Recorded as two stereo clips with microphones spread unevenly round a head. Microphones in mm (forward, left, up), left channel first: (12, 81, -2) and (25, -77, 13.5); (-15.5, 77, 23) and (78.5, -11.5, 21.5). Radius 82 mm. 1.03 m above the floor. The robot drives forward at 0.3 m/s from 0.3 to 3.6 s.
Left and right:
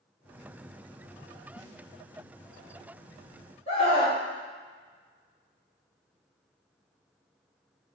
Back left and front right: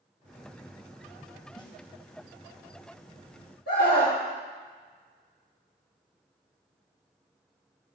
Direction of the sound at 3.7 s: 150° left.